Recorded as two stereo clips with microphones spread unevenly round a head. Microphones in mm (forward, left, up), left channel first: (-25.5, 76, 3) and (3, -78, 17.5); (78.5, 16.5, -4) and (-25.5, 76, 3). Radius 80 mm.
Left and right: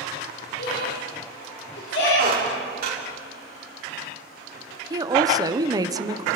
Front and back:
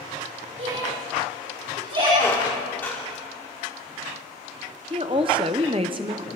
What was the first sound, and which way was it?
A shout, 120° left.